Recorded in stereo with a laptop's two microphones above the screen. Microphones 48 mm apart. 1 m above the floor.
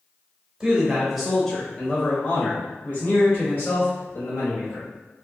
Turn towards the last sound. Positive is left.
turn(degrees=75)  # may be behind; listen again after turning